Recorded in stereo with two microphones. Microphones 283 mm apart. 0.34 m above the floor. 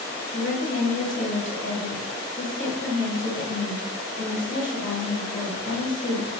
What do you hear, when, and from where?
0.3 s a woman speaking: 45° left (ahead or behind), 1.2 m